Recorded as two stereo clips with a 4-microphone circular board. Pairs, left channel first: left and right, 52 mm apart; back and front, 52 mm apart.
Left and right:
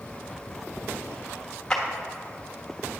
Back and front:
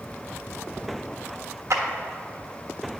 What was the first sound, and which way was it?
A clap, 10° left.